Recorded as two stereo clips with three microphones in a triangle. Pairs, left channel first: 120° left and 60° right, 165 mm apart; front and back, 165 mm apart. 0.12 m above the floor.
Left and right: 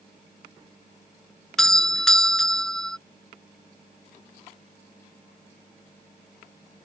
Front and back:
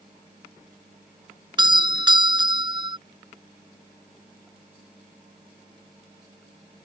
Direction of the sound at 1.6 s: 155° right.